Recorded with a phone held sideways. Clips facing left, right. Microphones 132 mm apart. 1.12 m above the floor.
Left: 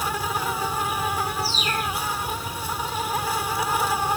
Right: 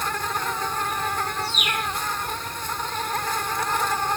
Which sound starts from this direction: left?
A bird, at 1.4 s.